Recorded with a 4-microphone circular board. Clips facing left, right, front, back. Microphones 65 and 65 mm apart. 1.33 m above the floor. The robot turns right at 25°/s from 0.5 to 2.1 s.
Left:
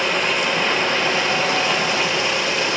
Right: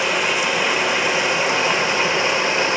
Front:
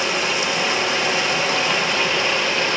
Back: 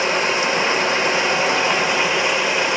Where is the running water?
165° right, 1.2 m; by 2.8 s 125° right, 1.2 m.